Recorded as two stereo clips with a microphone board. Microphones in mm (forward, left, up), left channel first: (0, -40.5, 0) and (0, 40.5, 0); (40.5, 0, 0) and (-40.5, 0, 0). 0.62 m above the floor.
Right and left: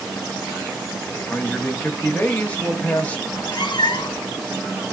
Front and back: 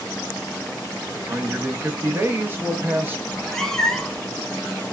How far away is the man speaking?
About 0.9 m.